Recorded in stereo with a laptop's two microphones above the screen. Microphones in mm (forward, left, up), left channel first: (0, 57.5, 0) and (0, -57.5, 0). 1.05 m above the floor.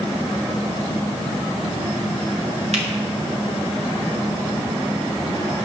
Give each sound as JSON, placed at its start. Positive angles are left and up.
{"t": 2.7, "sound": "a finger snap", "side_deg": -70, "distance_m": 2.0}